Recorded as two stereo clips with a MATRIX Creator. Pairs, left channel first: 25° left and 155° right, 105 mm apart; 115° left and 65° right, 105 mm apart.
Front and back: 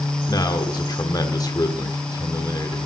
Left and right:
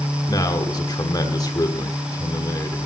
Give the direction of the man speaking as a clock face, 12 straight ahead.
10 o'clock.